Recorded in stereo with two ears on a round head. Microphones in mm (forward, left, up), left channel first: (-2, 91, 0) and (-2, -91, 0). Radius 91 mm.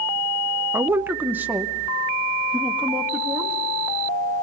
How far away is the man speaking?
About 0.6 m.